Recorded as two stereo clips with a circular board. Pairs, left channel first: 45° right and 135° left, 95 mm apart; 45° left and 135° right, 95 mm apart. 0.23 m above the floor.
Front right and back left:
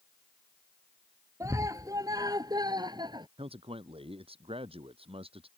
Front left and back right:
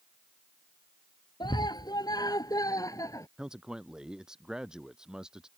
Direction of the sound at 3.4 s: 140° left.